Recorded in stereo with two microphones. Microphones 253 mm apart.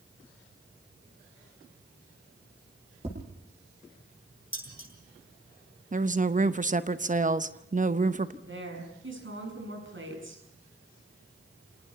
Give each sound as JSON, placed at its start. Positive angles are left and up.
{"t": 3.0, "sound": "tapping", "side_deg": -25, "distance_m": 8.5}
{"t": 4.5, "sound": "dishes clattering", "side_deg": 55, "distance_m": 8.5}
{"t": 5.9, "sound": "a woman speaking", "side_deg": -30, "distance_m": 0.9}
{"t": 8.4, "sound": "a woman speaking", "side_deg": -50, "distance_m": 6.5}